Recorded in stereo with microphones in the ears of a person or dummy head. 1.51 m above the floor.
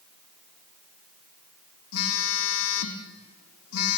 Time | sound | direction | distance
1.9 | a phone buzzing | 75° left (ahead or behind) | 1.1 m